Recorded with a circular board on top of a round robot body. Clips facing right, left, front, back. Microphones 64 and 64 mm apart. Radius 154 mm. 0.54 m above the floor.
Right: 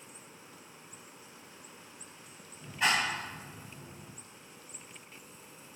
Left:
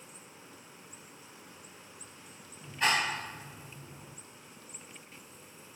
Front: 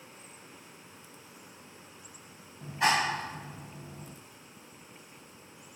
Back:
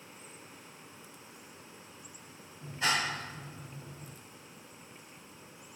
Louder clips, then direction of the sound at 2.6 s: Even, front 5 dB; straight ahead.